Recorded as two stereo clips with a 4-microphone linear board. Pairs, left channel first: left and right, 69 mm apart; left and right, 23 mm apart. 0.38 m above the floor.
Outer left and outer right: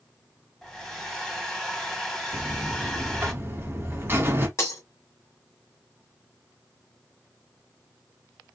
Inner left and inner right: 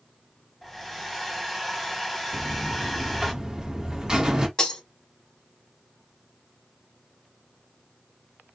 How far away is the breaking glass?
About 1.6 m.